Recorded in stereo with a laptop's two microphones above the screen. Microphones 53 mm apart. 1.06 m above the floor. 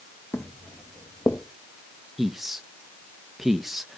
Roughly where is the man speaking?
Centre.